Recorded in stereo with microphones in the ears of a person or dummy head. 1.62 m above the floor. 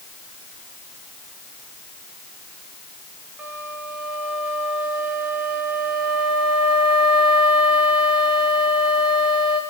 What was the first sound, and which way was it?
A flute, 10° right (ahead or behind).